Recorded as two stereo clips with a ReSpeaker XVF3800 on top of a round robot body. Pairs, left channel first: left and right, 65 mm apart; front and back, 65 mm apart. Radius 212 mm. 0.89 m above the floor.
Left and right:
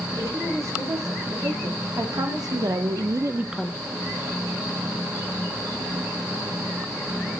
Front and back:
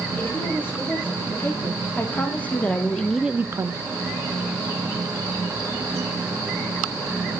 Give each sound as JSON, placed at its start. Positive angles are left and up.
{"t": 0.2, "sound": "a woman speaking", "azimuth_deg": -60, "distance_m": 4.0}